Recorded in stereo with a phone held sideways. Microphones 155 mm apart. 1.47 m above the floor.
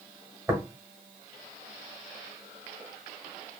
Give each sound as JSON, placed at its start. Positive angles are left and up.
{"t": 0.5, "sound": "tapping", "side_deg": -10, "distance_m": 1.3}